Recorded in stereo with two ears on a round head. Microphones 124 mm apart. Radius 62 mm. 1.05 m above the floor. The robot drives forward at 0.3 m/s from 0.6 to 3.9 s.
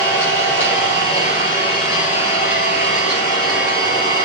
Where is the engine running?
55° left (ahead or behind), 3 m; by 4.2 s 40° left (ahead or behind), 3.5 m.